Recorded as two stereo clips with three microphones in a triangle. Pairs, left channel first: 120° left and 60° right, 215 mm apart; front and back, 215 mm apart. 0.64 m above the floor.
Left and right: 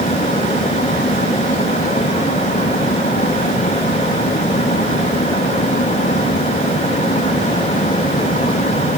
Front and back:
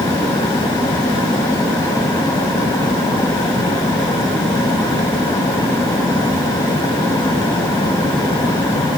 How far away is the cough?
No cough in this recording.